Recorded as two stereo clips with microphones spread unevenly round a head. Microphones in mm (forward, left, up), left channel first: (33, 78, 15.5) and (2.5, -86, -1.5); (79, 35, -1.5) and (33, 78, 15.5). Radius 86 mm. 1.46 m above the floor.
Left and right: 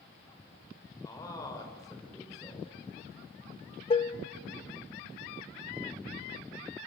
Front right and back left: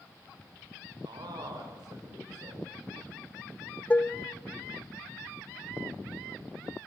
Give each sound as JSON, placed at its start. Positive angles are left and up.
{"t": 1.0, "sound": "a man speaking", "azimuth_deg": 150, "distance_m": 6.0}
{"t": 3.9, "sound": "dishes clattering", "azimuth_deg": 30, "distance_m": 1.1}